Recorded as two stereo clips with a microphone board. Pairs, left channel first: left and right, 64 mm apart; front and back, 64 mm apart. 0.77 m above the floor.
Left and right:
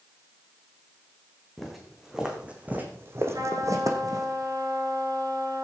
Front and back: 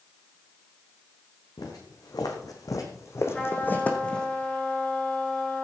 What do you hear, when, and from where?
1.6 s footsteps: straight ahead, 3.5 m; by 4.3 s 80° right, 3 m
3.3 s a trumpet: 75° right, 6 m